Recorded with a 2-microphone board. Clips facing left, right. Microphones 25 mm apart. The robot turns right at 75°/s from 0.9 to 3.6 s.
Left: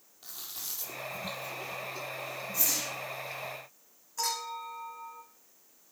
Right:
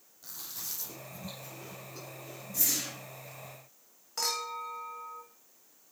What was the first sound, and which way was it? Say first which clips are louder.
Chewing: left 1 dB; 50° left (ahead or behind).